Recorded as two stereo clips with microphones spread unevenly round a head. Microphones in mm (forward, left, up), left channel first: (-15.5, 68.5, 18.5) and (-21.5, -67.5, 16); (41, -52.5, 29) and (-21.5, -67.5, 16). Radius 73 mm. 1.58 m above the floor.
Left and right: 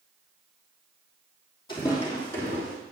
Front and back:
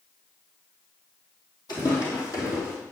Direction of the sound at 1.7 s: 30° left.